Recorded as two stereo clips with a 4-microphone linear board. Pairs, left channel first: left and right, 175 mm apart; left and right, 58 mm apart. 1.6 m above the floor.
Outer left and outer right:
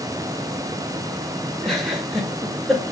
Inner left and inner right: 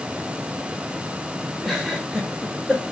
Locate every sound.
1.6 s a giggle: centre (ahead or behind), 5 m